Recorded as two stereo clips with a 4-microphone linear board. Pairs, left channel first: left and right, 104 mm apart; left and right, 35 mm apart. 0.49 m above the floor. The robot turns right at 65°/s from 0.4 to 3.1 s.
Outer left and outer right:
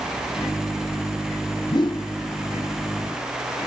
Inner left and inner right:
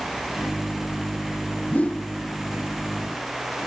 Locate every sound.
1.7 s a whoosh: 40° left (ahead or behind), 0.6 m; by 2.1 s 50° left (ahead or behind), 0.6 m